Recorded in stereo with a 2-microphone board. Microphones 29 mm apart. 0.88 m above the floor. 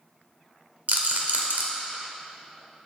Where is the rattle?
75° right (ahead or behind), 1.1 m.